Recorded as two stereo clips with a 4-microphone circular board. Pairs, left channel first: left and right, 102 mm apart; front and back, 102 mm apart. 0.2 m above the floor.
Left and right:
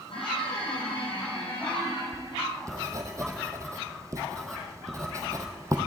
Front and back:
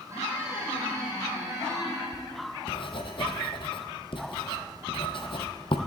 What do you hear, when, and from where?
0.1 s a squeak: 115° left, 5 m
2.1 s writing: 30° right, 1.3 m